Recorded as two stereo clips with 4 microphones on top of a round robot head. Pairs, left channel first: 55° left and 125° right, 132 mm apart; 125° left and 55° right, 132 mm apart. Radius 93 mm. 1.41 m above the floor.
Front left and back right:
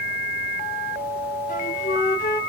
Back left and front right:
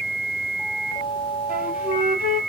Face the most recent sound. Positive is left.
turn(degrees=25)